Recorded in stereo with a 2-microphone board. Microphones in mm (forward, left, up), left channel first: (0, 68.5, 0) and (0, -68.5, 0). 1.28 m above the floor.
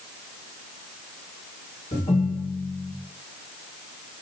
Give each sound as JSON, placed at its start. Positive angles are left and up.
{"t": 1.9, "sound": "a ringtone", "side_deg": 55, "distance_m": 1.4}